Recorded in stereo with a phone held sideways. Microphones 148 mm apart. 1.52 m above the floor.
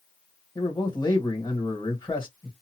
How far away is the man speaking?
About 1.5 m.